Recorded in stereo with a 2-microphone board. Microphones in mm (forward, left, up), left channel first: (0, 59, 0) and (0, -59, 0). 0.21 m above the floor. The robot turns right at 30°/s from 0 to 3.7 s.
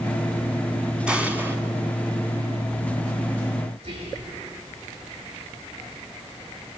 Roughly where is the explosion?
Centre.